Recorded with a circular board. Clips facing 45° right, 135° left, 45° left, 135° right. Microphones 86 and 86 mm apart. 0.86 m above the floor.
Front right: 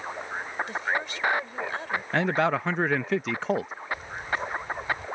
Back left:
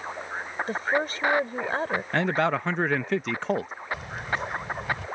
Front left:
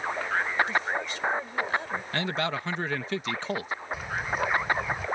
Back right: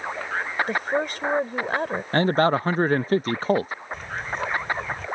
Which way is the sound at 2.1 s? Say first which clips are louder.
Front right 1 dB, back right 11 dB; 135° right.